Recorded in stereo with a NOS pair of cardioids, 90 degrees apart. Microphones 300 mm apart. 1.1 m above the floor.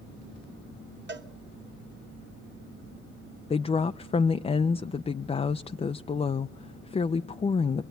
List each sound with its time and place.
1.1 s a cowbell: 40° right, 1.6 m
3.5 s a woman speaking: 20° left, 0.5 m